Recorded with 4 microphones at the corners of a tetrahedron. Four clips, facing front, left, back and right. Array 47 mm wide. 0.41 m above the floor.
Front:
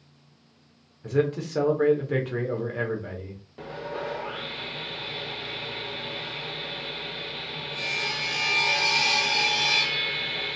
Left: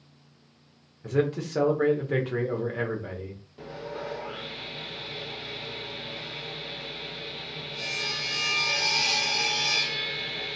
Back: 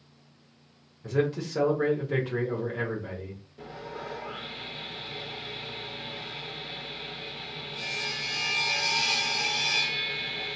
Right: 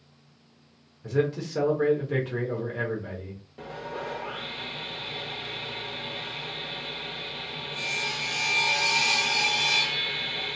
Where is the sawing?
25° right, 0.6 m.